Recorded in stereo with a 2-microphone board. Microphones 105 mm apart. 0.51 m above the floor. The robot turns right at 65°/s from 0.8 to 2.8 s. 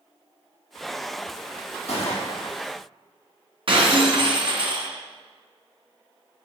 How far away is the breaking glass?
About 2 m.